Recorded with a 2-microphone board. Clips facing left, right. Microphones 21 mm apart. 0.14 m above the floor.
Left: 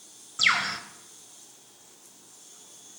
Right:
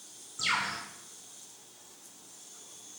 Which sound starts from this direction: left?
A bird, at 0.4 s.